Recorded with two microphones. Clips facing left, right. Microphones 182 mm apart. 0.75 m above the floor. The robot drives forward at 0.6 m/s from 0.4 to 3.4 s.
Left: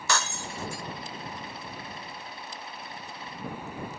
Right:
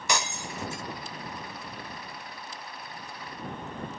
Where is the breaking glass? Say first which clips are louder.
Even; 15° right (ahead or behind); by 0.8 s 25° right (ahead or behind).